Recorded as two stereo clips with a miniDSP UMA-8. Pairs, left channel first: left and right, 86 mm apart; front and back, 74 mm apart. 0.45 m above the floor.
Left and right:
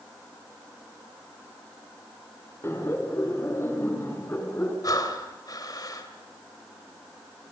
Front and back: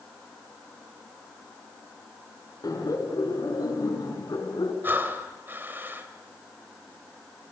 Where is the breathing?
125° left, 2 m.